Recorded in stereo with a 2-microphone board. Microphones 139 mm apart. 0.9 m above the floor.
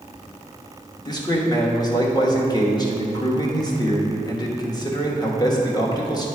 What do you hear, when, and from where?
1.1 s a man speaking: 25° left (ahead or behind), 1.1 m